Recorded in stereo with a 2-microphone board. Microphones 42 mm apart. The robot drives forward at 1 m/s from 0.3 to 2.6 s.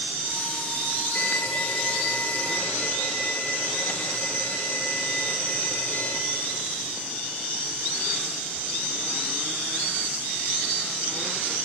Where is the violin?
55° left (ahead or behind), 2.5 m; by 6.2 s 35° left (ahead or behind), 3.5 m.